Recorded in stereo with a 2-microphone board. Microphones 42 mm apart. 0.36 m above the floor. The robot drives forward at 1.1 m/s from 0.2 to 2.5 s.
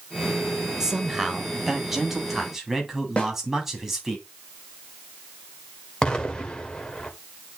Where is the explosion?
15° left (ahead or behind), 1.4 m.